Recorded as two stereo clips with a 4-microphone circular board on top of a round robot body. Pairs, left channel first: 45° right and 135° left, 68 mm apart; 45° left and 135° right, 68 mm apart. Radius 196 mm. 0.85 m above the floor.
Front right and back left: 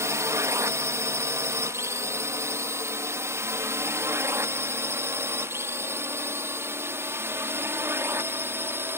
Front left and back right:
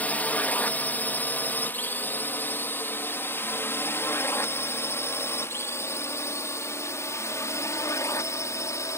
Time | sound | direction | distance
0.0 | a drone | 105° left | ?